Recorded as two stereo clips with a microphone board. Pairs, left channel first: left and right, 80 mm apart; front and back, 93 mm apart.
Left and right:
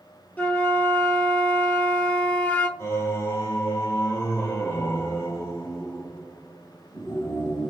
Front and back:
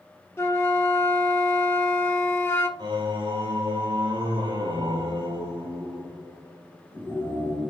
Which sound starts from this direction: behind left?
Singing, at 2.8 s.